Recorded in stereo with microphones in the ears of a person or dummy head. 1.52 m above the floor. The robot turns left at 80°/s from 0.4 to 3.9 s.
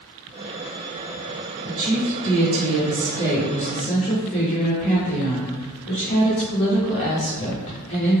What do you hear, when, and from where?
1.7 s a woman speaking: 30° right, 1.0 m; by 8.2 s 155° left, 1.0 m